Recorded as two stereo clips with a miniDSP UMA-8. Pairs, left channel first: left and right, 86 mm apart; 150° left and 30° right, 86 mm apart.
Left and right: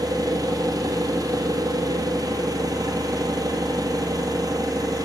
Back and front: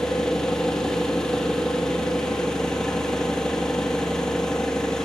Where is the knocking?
I don't hear knocking.